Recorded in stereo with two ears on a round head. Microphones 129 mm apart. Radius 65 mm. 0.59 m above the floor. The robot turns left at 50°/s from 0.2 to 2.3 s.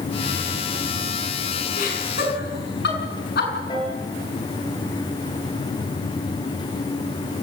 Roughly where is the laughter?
Left.